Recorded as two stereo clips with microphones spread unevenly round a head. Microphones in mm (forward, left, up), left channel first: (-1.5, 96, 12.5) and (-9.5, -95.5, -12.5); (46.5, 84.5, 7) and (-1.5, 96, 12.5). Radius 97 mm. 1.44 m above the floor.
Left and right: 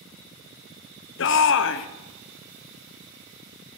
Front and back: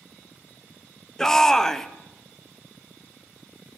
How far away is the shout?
About 0.7 m.